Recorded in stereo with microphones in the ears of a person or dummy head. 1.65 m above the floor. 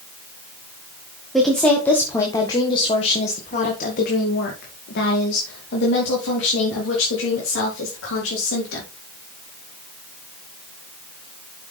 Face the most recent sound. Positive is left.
turn(degrees=85)